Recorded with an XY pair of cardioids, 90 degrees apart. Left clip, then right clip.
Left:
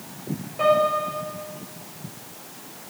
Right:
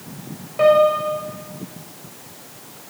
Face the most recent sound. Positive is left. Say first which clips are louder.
# right 6 dB
turn(degrees=-50)